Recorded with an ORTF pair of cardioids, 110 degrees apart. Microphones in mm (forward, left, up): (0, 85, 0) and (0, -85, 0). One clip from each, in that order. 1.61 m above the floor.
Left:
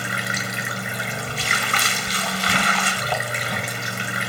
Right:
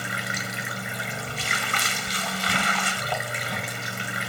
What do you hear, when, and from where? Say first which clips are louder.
0.0 s running water: left 4 dB; 25° left